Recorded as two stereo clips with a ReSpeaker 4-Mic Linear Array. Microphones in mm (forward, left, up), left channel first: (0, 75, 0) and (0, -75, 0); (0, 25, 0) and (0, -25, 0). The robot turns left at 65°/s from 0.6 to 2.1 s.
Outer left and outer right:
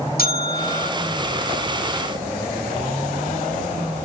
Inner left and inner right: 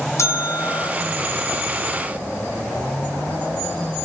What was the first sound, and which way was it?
A bell, 80° left.